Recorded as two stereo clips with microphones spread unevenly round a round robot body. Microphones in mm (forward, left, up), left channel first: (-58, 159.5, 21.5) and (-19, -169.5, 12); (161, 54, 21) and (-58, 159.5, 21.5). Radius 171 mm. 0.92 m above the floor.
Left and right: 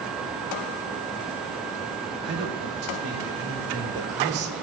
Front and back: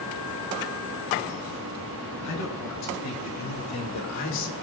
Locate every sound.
2.2 s a man speaking: 30° right, 5.5 m